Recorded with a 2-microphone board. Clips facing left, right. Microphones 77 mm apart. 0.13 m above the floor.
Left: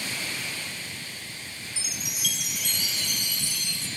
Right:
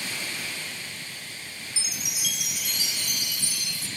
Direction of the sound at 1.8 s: 5° right (ahead or behind).